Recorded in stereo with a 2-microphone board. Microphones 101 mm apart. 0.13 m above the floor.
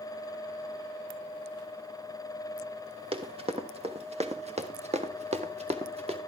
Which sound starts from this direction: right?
Running footsteps, at 3.1 s.